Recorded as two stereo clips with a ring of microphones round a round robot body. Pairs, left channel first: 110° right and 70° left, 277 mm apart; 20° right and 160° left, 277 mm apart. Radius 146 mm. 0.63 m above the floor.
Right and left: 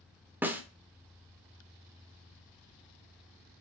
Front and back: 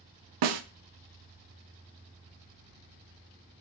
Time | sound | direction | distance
0.4 | a snare drum | 150° left | 0.8 m